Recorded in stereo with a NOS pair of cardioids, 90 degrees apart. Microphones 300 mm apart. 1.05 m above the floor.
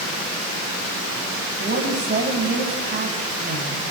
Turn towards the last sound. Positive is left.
turn(degrees=-35)